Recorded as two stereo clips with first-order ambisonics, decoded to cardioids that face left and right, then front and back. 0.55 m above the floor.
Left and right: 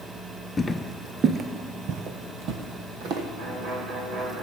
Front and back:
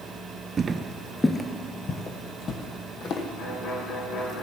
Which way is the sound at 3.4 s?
45° right.